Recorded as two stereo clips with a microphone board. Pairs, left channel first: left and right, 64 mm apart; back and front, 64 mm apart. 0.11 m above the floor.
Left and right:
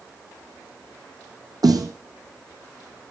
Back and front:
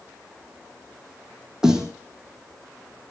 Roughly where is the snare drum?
Right.